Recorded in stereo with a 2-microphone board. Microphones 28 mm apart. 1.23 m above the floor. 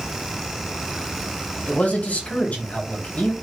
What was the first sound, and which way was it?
A man speaking, 70° left (ahead or behind).